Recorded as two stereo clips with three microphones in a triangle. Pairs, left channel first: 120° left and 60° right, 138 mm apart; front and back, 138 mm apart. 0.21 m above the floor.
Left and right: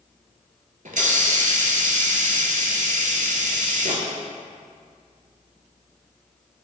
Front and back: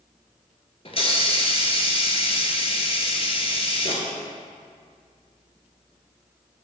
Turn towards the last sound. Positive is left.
turn(degrees=-45)